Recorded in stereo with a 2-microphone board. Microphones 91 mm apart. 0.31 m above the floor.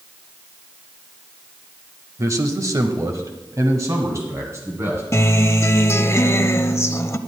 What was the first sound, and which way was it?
A man speaking, 35° right (ahead or behind).